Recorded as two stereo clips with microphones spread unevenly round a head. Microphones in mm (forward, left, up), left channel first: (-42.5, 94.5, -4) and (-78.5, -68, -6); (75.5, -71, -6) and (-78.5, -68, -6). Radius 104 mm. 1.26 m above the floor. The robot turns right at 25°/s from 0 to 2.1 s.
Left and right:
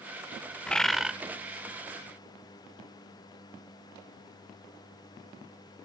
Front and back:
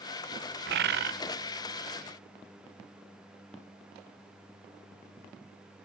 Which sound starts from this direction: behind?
A bird, at 0.7 s.